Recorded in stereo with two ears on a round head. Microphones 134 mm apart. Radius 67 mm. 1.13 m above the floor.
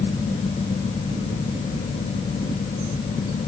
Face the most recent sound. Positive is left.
No sound to turn to.